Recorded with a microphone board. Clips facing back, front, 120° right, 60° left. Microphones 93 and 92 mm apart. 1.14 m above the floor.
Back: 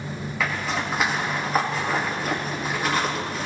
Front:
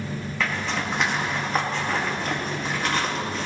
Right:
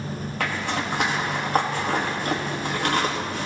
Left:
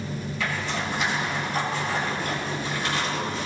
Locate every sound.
0.4 s a zipper: 95° right, 1.8 m